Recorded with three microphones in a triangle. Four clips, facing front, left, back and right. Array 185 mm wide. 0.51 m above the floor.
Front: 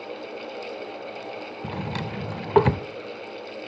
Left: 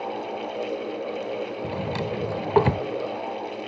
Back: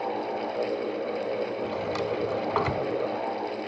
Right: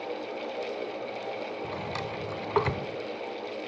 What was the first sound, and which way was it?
A drawer, 30° left.